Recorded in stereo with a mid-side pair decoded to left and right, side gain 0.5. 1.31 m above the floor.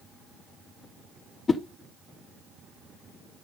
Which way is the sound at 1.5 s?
30° left.